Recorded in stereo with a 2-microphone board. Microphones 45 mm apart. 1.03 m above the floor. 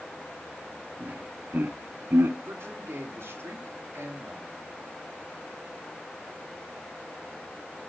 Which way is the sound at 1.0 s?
50° right (ahead or behind).